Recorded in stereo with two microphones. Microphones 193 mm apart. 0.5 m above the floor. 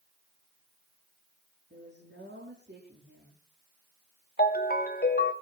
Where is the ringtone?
55° left (ahead or behind), 1.2 m.